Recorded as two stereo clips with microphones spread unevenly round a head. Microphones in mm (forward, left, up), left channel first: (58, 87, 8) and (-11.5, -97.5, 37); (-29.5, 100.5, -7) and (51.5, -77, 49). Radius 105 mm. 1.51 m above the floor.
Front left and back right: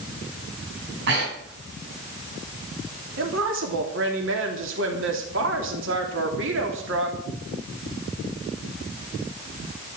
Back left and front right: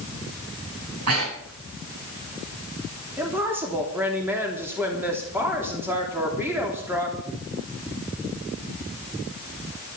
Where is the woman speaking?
145° right, 3 m.